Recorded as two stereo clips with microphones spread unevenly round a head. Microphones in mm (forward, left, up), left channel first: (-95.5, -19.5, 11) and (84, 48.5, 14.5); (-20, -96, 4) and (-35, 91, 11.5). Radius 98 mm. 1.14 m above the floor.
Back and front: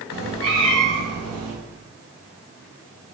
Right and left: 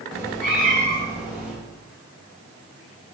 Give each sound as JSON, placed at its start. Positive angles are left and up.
{"t": 0.1, "sound": "a cat meowing", "azimuth_deg": 10, "distance_m": 3.5}